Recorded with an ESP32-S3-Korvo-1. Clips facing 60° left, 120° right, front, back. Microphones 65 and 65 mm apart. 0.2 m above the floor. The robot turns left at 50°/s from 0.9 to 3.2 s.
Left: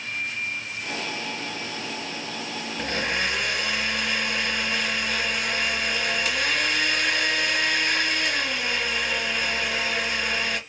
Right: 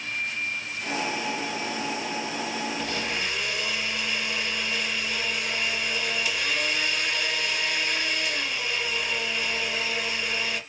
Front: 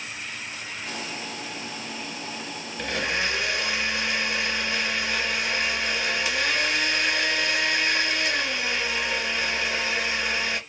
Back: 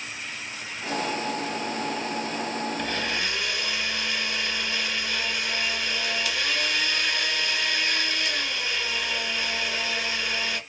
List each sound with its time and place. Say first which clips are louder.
2.8 s a blender: left 3 dB, front 1 dB; 80° left, 3.5 m; by 10.6 s 60° left, 3.5 m